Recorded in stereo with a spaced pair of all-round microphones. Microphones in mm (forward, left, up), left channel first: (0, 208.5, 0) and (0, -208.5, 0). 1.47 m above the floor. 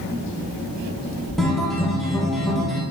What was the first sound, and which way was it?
A guitar, centre (ahead or behind).